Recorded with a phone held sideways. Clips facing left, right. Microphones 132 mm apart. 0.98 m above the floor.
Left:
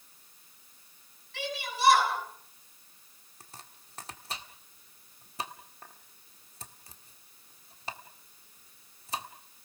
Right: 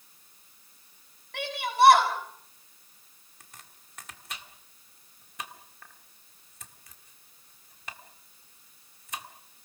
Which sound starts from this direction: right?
A shout, at 1.3 s.